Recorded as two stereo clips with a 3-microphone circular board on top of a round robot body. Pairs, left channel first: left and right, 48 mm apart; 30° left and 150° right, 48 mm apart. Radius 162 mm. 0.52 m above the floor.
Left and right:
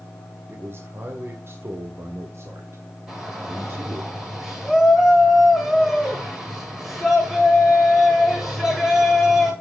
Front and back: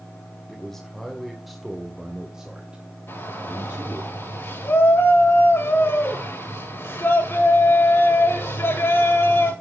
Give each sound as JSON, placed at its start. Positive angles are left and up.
{"t": 0.5, "sound": "a man speaking", "azimuth_deg": -55, "distance_m": 2.5}
{"t": 3.1, "sound": "a shout", "azimuth_deg": -10, "distance_m": 9.0}